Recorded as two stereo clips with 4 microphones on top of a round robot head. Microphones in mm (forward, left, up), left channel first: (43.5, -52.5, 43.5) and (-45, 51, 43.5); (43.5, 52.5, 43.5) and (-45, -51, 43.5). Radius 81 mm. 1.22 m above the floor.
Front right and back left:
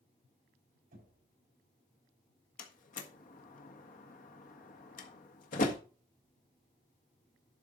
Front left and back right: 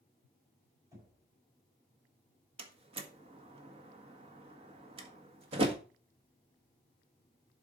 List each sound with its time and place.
0.9 s knocking: 160° left, 6 m
2.6 s a door slam: 80° right, 1.5 m